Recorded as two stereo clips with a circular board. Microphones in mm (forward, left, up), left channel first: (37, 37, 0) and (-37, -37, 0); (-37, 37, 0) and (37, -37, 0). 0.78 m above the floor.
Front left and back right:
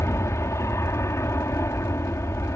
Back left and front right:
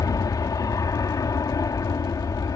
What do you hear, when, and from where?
0.0 s an aircraft: 95° left